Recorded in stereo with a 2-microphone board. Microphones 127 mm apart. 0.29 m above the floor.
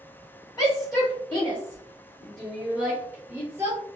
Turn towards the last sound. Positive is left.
turn(degrees=-20)  # may be behind; listen again after turning